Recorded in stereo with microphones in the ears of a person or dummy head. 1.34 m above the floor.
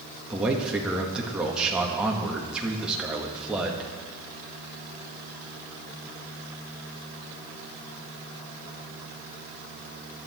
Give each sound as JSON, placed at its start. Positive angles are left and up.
{"t": 0.3, "sound": "a man speaking", "side_deg": -5, "distance_m": 2.0}